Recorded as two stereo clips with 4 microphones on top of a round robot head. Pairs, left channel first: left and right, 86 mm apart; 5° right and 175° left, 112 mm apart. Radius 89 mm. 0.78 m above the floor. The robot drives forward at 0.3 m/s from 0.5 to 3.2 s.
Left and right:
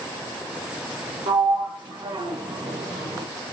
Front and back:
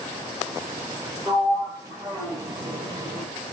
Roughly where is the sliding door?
Behind right.